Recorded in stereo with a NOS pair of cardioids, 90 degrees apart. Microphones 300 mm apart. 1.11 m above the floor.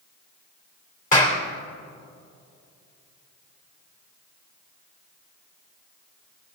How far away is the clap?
About 3 m.